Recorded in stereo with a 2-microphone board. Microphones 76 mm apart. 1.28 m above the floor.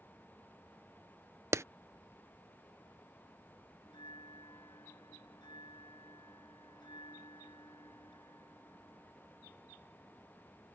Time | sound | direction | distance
1.5 | a clap | 35° right (ahead or behind) | ?
3.9 | a bell | 85° left | ?